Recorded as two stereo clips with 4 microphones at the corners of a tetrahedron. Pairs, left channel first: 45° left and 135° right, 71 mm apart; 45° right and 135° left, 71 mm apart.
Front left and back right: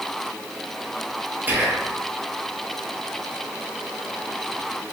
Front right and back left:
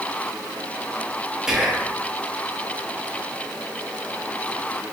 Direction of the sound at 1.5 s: 160° right.